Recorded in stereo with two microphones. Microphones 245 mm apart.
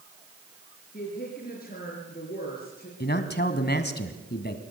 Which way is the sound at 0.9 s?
40° left (ahead or behind).